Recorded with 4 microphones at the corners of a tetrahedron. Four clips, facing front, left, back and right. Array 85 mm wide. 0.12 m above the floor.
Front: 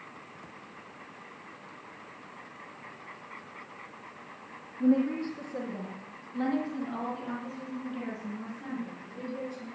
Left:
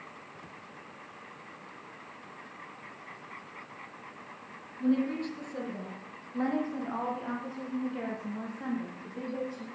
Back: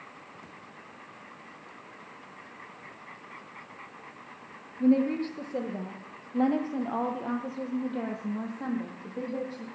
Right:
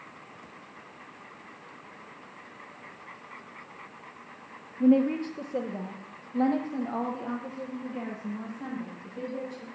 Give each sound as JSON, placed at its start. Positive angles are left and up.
{"t": 4.8, "sound": "a woman speaking", "azimuth_deg": -110, "distance_m": 3.0}